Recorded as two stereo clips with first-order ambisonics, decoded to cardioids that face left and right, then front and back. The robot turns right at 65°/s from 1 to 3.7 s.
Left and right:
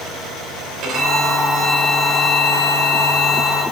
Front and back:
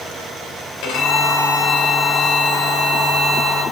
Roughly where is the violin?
Ahead right.